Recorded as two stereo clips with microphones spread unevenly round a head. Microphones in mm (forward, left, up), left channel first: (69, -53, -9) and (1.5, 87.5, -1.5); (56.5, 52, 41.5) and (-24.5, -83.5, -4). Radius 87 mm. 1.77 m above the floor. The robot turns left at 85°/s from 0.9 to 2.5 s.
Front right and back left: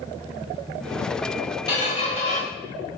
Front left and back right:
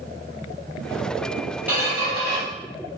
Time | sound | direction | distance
1.7 | a squeak | 20° right | 1.0 m